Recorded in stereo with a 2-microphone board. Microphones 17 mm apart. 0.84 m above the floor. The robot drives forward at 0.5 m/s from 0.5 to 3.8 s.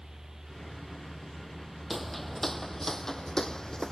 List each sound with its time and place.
1.9 s footsteps: centre (ahead or behind); by 3.9 s 45° left (ahead or behind)